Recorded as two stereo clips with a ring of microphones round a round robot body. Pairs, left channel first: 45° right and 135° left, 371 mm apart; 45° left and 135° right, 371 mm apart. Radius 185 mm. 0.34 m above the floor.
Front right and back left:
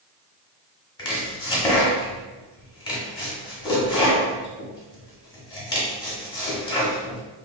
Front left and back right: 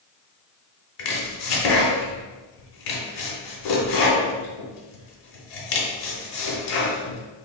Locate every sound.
1.0 s chopping: 30° left, 0.8 m